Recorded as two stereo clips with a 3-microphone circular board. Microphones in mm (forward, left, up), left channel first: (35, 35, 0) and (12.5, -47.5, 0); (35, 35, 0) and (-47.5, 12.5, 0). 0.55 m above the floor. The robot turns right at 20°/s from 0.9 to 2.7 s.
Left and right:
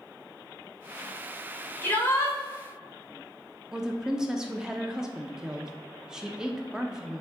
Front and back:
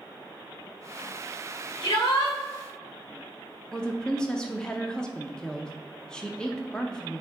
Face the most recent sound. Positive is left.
turn(degrees=-40)